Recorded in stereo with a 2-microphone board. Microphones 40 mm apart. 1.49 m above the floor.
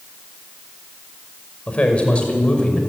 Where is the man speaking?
30° left (ahead or behind), 5.5 m; by 2.8 s 25° left (ahead or behind), 5.5 m.